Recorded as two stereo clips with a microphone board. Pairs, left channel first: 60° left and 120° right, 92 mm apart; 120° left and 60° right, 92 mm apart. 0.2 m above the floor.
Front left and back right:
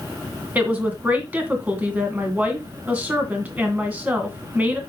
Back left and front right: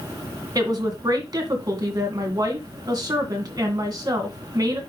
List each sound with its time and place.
0.6 s a woman speaking: 55° right, 2 m